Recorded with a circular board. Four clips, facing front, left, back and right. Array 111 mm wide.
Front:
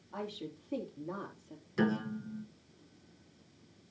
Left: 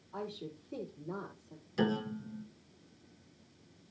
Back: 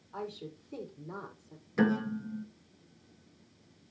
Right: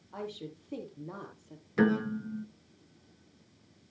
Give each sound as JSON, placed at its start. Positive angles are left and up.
{"t": 0.1, "sound": "a woman speaking", "azimuth_deg": -40, "distance_m": 3.5}
{"t": 1.8, "sound": "a piano", "azimuth_deg": -115, "distance_m": 1.2}